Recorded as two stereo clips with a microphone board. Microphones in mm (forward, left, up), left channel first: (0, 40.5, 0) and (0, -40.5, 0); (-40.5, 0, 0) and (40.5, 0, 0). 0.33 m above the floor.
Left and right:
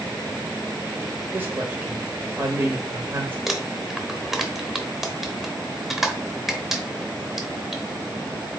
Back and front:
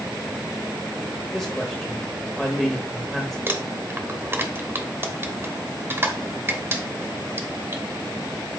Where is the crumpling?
5° right, 0.8 m.